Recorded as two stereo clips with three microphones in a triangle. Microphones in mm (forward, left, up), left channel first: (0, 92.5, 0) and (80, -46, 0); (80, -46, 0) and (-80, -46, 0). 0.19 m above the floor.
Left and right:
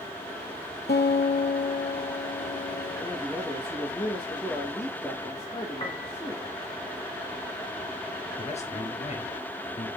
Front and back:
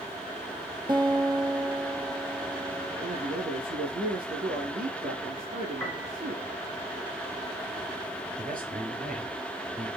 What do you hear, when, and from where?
0.9 s a guitar: 115° left, 1.2 m
3.0 s a man speaking: 165° right, 4 m
5.8 s a piano: 70° left, 1.7 m
8.4 s a man speaking: 165° left, 3.5 m